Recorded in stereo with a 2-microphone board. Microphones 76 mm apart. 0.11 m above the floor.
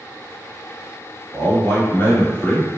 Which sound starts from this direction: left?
A man speaking, at 1.3 s.